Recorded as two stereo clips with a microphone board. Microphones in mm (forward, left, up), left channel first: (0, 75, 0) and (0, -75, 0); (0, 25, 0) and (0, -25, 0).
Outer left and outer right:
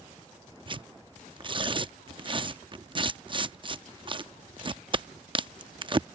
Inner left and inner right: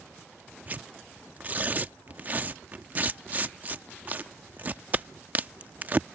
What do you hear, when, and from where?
0.7 s tearing paper: 35° right (ahead or behind)